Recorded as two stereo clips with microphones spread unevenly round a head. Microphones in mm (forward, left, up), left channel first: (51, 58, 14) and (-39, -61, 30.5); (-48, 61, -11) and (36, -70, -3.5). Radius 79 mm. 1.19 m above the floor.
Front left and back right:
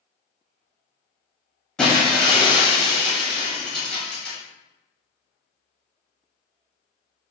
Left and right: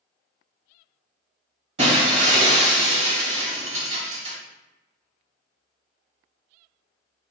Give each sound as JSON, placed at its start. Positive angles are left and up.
{"t": 1.8, "sound": "breaking glass", "azimuth_deg": -40, "distance_m": 1.2}